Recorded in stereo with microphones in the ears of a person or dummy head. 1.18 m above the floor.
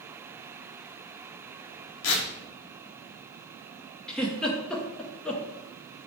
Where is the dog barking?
No dog barking in this recording.